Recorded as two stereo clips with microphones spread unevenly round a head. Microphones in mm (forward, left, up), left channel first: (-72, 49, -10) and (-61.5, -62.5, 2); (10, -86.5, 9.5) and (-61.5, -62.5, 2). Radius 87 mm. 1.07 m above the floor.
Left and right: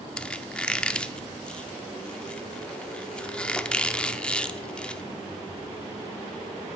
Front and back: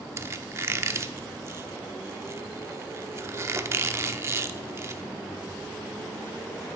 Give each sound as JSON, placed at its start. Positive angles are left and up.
{"t": 0.2, "sound": "a squeak", "azimuth_deg": 180, "distance_m": 0.7}